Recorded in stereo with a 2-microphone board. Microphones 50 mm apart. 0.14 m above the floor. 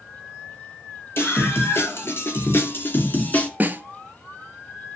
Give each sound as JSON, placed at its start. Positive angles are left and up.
{"t": 1.2, "sound": "a scream", "side_deg": 50, "distance_m": 4.0}
{"t": 3.6, "sound": "a snare drum", "side_deg": -35, "distance_m": 0.8}